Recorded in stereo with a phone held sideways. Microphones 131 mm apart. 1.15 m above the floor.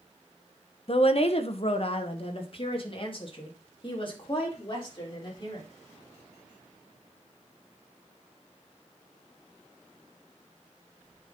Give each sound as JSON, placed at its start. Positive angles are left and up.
{"t": 0.9, "sound": "a woman speaking", "side_deg": 45, "distance_m": 0.8}